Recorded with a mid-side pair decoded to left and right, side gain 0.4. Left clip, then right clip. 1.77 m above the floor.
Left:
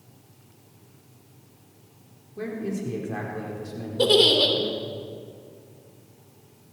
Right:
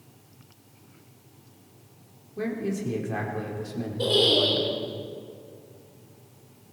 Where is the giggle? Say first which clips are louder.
Left 3 dB; 65° left, 3.5 m.